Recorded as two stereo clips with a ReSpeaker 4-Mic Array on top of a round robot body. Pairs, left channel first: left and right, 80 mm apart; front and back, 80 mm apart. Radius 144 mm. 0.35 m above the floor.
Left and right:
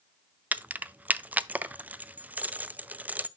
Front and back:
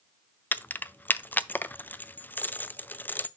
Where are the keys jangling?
40° right, 0.6 m.